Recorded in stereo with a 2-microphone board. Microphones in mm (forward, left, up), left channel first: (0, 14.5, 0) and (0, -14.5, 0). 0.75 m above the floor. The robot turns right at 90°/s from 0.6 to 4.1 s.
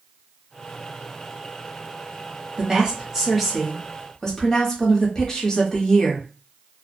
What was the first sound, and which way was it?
A woman speaking, 25° right (ahead or behind).